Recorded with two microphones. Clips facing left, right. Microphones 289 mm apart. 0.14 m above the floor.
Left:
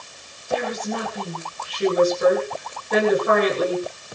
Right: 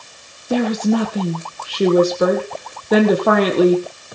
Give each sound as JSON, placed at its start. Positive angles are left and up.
{"t": 0.5, "sound": "a woman speaking", "side_deg": -75, "distance_m": 4.5}